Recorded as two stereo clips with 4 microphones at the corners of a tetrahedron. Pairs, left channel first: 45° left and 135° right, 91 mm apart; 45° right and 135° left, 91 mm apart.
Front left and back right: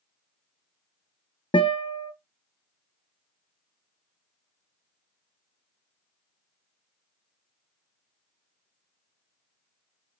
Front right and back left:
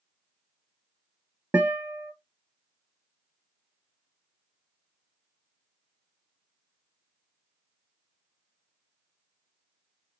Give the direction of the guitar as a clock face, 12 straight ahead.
10 o'clock.